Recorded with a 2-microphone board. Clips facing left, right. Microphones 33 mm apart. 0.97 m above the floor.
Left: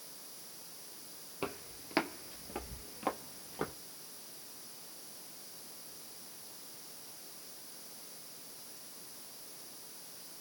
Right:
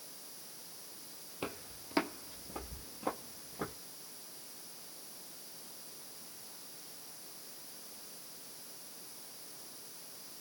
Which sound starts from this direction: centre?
Footsteps, at 1.4 s.